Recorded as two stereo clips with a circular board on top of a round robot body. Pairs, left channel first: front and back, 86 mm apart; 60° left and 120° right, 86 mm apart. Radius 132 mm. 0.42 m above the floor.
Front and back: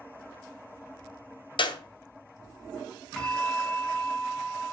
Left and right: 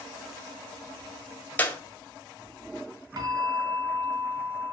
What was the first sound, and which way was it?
A clap, 10° right.